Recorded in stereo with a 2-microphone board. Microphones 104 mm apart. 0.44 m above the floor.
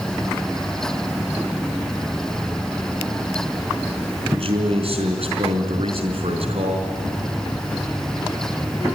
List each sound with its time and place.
4.3 s a man speaking: 70° right (ahead or behind), 4 m